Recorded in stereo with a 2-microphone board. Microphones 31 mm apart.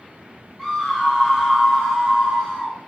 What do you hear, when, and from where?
0.6 s a scream: 10° left (ahead or behind), 3.5 m; by 2.7 s 20° right (ahead or behind), 4 m